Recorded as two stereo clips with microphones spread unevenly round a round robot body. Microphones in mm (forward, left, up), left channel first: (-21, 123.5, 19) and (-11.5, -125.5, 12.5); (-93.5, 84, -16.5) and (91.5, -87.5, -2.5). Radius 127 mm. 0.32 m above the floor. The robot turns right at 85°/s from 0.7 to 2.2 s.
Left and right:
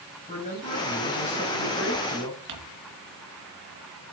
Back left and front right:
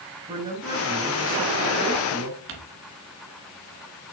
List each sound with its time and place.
0.3 s a man speaking: 30° left, 4.5 m; by 2.4 s 160° left, 4.5 m
2.5 s crumpling: 85° right, 3 m